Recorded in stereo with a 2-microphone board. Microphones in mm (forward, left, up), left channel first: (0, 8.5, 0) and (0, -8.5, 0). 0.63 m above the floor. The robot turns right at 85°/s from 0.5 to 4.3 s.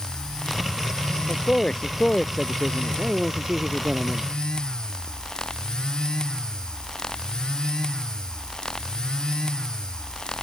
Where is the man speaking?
90° left; by 4.3 s 10° right.